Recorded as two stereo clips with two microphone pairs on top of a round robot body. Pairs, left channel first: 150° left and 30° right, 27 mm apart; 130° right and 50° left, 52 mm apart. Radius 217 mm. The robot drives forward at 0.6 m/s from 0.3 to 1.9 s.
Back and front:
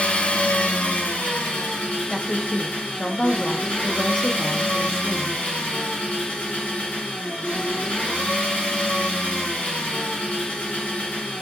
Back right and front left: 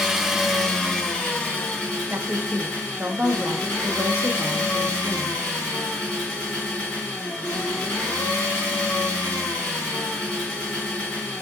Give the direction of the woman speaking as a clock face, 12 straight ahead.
9 o'clock.